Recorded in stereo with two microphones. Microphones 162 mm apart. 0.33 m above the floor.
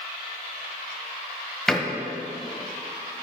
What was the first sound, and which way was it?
A door slam, 5° left (ahead or behind).